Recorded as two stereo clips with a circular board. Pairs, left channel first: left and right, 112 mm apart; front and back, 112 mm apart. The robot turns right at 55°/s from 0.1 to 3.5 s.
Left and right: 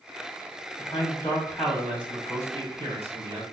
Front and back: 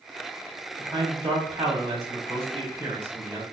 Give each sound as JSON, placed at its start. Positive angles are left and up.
{"t": 0.8, "sound": "a man speaking", "azimuth_deg": 125, "distance_m": 2.0}